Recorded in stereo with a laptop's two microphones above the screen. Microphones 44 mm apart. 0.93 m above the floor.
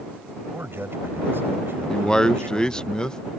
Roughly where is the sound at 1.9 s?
Centre.